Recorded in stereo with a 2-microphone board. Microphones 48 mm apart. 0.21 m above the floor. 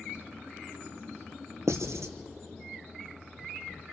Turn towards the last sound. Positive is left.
turn(degrees=-80)